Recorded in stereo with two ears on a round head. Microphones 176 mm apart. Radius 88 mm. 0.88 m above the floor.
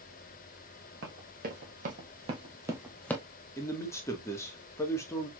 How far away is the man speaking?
About 1.3 m.